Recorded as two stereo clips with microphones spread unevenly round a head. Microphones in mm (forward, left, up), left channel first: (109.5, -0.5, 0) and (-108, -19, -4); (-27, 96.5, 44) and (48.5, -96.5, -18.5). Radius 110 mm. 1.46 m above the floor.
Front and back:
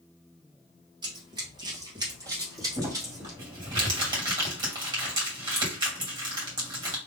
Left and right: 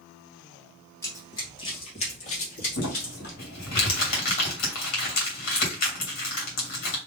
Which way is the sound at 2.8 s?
115° left.